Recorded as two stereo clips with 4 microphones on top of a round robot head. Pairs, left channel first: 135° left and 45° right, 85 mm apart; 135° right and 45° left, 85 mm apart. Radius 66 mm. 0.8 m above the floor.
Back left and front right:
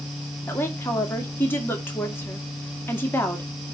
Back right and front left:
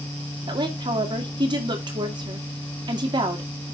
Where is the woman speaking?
70° left, 1.9 m.